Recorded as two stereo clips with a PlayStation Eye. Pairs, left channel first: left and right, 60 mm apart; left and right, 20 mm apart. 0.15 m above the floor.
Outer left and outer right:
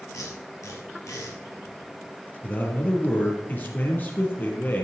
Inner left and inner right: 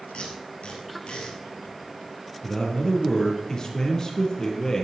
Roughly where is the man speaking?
Left.